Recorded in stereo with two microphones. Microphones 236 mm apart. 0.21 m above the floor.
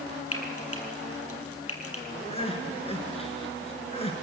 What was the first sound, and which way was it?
Frying, 75° left (ahead or behind).